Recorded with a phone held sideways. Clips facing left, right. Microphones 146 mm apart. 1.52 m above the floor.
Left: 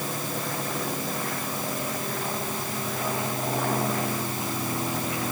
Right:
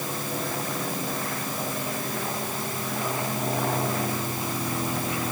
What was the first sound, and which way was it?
Only background noise.